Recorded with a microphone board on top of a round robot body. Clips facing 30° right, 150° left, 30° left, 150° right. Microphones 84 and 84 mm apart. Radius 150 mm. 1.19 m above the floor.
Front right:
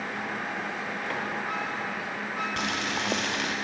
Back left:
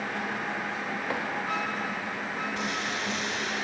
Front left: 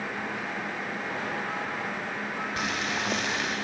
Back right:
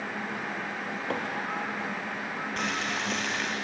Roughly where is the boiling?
Ahead right.